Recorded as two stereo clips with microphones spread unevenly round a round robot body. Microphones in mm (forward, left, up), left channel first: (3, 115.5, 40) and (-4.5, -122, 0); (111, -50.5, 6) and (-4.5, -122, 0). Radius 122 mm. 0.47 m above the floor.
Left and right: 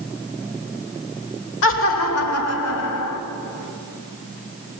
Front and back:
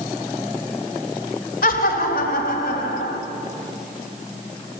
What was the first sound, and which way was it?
Laughter, 50° left.